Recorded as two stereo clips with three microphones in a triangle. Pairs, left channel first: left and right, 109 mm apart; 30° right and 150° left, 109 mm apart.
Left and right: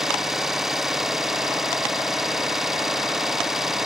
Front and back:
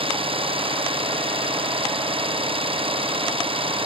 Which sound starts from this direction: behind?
An engine running, at 0.0 s.